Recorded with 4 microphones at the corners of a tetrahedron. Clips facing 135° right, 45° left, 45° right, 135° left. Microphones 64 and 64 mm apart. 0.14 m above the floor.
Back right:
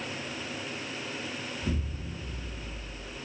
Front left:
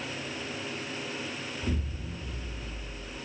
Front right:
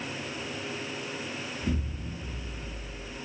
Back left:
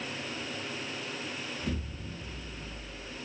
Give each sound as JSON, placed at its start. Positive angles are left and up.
{"t": 1.6, "sound": "an explosion", "azimuth_deg": -105, "distance_m": 1.9}